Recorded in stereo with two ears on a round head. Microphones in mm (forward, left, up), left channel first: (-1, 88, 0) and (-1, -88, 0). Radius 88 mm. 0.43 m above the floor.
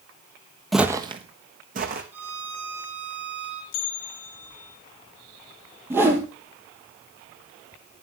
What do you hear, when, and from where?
0.7 s footsteps: centre (ahead or behind), 0.8 m; by 2.0 s 50° right (ahead or behind), 2.0 m
2.1 s a violin: 10° right (ahead or behind), 2.5 m
3.7 s a bell: 80° left, 3.5 m
5.9 s a whoosh: 10° right (ahead or behind), 2.5 m